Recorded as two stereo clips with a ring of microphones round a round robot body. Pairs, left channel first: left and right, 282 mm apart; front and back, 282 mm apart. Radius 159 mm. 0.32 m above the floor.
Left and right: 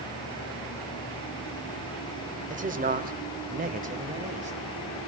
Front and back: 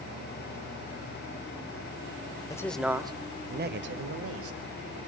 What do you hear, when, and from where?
2.5 s a man speaking: 65° right, 1.1 m; by 5.0 s 160° right, 2.5 m